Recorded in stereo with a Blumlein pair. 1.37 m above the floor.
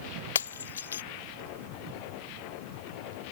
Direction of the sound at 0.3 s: 70° left.